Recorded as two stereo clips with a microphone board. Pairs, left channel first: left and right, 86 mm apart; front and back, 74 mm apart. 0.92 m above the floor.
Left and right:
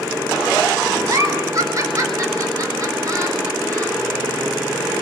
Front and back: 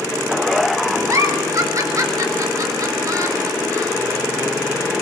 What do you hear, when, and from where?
1.1 s a giggle: 140° right, 3.5 m